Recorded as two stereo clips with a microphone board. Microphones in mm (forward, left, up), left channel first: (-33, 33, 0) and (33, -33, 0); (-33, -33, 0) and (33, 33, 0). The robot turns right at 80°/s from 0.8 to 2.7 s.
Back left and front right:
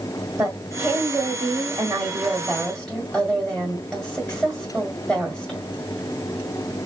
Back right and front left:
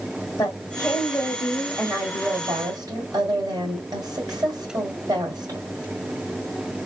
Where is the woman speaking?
105° right, 1.9 m; by 5.6 s 50° left, 1.9 m.